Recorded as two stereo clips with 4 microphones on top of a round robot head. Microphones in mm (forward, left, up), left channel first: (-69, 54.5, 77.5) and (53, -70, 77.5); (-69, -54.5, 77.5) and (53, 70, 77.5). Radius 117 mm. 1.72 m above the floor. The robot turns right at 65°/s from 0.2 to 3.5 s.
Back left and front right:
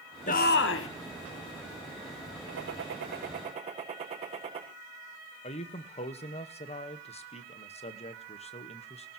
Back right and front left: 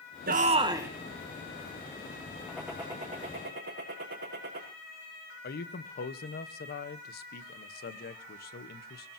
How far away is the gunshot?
About 5.5 m.